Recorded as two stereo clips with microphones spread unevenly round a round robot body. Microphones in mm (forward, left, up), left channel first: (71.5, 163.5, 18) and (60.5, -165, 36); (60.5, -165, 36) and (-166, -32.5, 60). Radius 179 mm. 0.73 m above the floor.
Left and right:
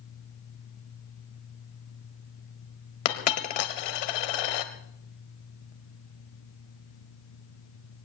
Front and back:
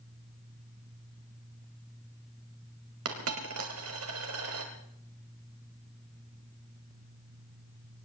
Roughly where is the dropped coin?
Left.